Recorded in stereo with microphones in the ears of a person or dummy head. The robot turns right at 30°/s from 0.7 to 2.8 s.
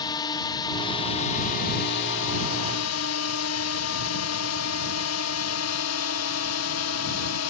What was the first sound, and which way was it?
A drone, 25° left.